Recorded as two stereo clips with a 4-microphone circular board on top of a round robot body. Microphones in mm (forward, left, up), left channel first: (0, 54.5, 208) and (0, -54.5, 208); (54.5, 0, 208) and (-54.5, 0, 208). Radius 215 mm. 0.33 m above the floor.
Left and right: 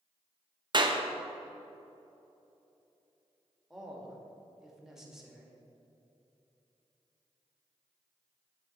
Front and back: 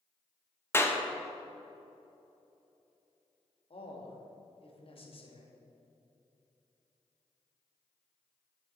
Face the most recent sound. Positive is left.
turn(degrees=-5)